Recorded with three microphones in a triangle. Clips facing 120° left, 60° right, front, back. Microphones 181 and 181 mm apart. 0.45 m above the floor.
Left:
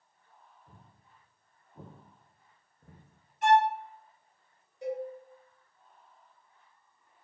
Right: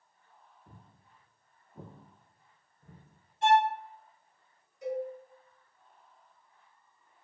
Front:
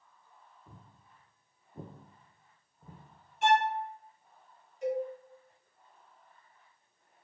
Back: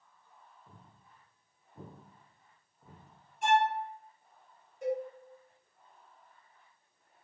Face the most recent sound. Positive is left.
turn(degrees=170)